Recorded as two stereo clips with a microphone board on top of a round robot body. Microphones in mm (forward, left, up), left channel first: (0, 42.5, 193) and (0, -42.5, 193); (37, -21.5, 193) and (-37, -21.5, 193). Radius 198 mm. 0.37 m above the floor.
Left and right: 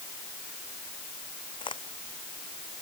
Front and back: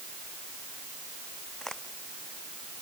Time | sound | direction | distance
1.6 | a crack | 85° left | ?